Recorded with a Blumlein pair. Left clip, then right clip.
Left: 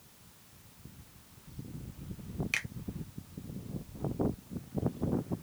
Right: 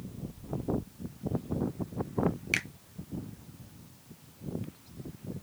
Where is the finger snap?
10° right, 0.6 m.